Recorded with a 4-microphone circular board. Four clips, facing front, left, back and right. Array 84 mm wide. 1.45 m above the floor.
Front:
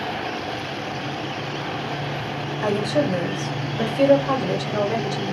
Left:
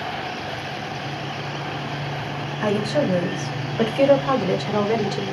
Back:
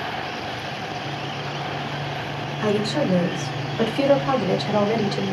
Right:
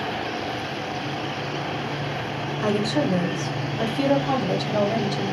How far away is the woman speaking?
About 2.5 m.